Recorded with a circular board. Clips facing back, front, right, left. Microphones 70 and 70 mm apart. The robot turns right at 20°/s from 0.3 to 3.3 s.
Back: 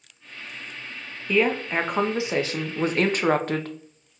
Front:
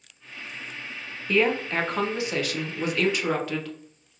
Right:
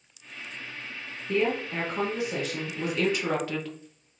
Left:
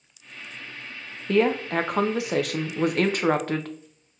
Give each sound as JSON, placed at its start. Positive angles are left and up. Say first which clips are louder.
{"t": 1.3, "sound": "a woman speaking", "louder": "back 1 dB, left 5 dB", "azimuth_deg": 95, "distance_m": 0.5}